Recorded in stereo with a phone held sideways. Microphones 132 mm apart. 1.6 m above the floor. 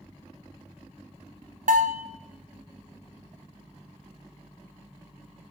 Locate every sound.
1.7 s a bell: 85° right, 0.6 m